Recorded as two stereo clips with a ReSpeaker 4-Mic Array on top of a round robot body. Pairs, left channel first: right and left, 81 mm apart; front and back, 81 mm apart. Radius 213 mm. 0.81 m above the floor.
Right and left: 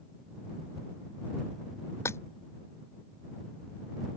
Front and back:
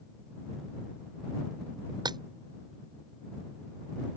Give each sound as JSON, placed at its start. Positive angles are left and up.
{"t": 2.0, "sound": "breaking glass", "azimuth_deg": -150}